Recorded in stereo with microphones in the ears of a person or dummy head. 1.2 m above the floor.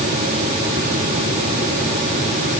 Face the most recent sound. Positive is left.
No sound to turn to.